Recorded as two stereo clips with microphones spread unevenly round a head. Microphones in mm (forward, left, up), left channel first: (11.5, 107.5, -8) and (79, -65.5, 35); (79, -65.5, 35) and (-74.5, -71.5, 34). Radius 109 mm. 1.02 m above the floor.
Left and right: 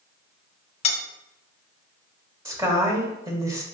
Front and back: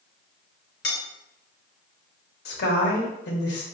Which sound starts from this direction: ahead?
A woman speaking, at 2.5 s.